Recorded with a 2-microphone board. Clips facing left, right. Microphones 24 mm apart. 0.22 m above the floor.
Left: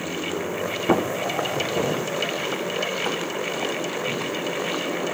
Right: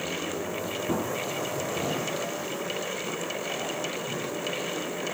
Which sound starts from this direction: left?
Footsteps, at 0.9 s.